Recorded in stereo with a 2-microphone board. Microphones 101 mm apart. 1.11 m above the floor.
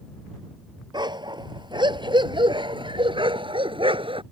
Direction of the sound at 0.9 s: 45° right (ahead or behind).